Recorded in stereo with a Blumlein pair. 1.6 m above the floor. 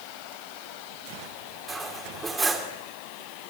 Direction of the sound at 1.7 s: 15° right.